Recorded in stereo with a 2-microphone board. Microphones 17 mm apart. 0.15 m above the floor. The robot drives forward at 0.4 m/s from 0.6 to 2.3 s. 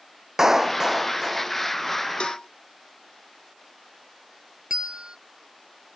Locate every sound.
0.4 s a clap: 25° right (ahead or behind); by 1.5 s 20° right (ahead or behind)
2.2 s a cowbell: 80° left; by 2.5 s 75° left (ahead or behind)
4.7 s a bell: 60° right (ahead or behind)